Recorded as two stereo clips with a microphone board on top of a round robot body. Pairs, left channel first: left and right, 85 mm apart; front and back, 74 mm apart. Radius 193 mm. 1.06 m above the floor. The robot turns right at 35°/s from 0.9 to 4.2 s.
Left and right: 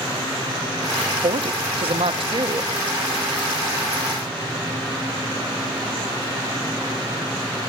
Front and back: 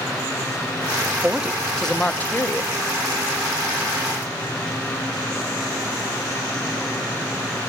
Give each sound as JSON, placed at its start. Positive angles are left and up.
{"t": 1.2, "sound": "a woman speaking", "azimuth_deg": -105, "distance_m": 0.7}